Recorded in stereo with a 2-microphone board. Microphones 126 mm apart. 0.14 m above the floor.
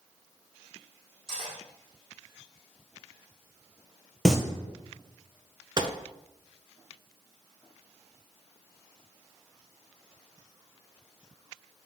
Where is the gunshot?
40° right (ahead or behind), 0.5 m.